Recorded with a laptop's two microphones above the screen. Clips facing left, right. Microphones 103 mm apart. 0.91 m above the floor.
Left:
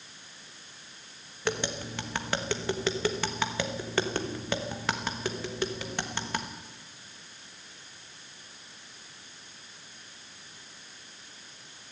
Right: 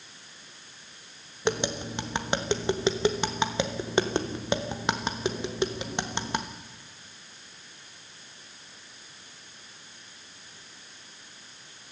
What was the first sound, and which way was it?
Tapping, 20° right (ahead or behind).